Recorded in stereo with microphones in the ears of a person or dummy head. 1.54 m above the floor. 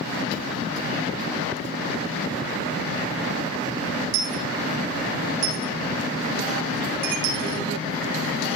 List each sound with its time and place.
4.1 s a dropped coin: 55° right (ahead or behind), 2.5 m